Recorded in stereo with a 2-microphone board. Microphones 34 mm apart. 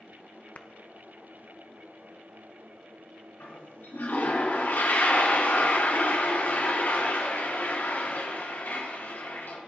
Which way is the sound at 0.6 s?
50° left (ahead or behind).